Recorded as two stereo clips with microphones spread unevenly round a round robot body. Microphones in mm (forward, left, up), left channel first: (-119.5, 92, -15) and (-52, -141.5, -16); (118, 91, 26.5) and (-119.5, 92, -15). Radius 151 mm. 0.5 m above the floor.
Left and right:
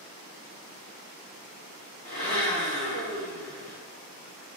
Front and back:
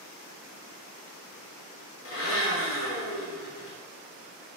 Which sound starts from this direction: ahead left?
A blender, at 2.0 s.